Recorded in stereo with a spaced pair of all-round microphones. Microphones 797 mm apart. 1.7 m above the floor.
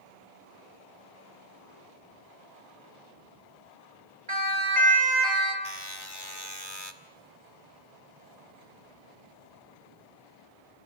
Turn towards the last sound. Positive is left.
turn(degrees=30)  # may be behind; listen again after turning